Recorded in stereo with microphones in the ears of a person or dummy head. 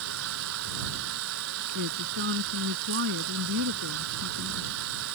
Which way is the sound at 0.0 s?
75° right (ahead or behind).